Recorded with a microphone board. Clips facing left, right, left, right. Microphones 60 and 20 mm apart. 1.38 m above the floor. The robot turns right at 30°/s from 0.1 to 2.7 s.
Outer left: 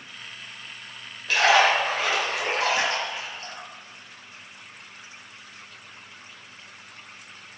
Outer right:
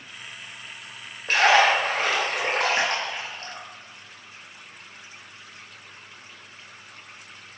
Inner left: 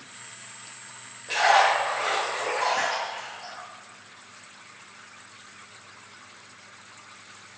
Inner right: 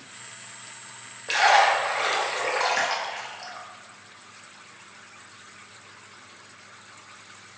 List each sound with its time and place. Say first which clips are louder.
1.3 s a splash: outer right 1 dB, inner right 1 dB; 40° right (ahead or behind), 0.7 m; by 3.7 s 45° right (ahead or behind), 0.7 m